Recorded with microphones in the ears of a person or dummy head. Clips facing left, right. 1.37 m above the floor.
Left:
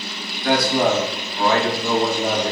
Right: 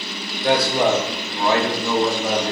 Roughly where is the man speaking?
Right.